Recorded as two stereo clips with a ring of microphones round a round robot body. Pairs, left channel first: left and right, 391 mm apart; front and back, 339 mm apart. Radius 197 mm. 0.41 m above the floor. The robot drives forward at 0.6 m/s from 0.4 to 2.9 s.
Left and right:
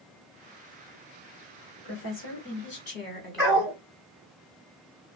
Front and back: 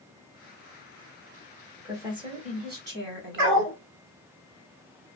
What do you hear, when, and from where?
1.8 s a woman speaking: 95° left, 1.3 m; by 3.7 s 140° left, 1.4 m
3.4 s a dog barking: straight behind, 2.5 m